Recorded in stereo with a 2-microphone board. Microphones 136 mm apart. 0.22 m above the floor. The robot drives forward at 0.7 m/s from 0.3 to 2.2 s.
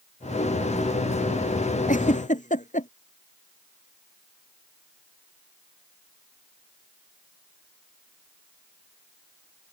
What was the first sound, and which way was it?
A giggle, 70° left (ahead or behind).